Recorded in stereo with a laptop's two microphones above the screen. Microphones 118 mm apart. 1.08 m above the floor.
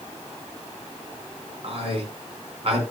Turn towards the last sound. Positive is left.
turn(degrees=-55)  # may be behind; listen again after turning